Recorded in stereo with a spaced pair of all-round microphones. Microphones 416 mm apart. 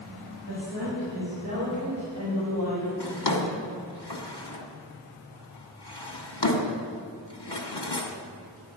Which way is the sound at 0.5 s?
50° right (ahead or behind).